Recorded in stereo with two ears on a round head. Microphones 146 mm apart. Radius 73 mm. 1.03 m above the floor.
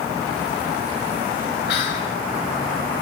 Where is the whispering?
80° left, 6.5 m.